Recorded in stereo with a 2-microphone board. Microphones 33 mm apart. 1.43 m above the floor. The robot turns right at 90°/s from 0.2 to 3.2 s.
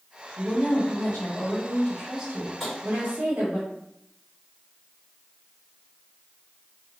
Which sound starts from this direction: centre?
Tapping, at 2.6 s.